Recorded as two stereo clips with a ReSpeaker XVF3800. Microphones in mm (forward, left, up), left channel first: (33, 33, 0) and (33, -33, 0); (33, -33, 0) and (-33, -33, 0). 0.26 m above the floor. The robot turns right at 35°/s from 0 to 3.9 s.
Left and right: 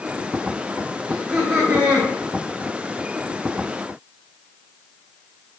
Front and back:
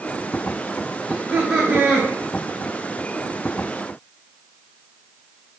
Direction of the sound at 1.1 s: 175° right.